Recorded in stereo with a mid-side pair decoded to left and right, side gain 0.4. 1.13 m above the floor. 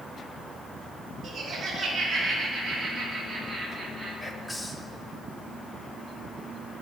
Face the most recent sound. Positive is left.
turn(degrees=0)